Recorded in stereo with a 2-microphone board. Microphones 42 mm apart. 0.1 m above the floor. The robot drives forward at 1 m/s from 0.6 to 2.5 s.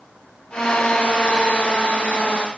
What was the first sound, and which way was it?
Only background noise.